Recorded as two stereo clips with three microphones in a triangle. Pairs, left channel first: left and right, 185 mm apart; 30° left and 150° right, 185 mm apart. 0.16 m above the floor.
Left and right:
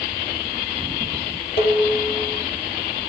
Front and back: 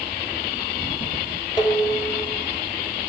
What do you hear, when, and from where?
1.6 s dishes clattering: 95° left, 3.5 m